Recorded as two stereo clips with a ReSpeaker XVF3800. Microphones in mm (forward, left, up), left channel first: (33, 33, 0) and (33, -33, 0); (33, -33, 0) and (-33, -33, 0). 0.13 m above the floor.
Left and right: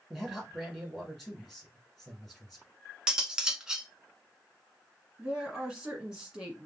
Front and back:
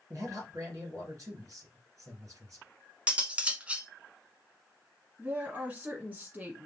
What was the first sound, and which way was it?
A man speaking, 175° left.